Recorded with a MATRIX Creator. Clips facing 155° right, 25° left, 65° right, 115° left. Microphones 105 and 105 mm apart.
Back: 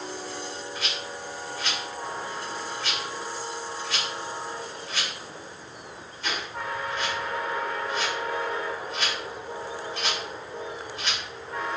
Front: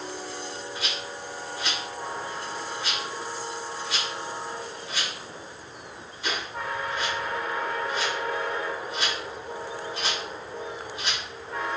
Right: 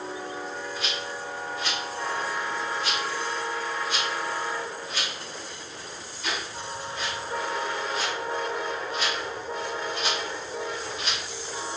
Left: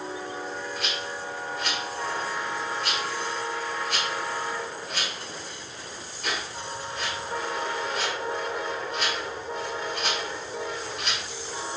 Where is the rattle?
95° left, 2.0 m.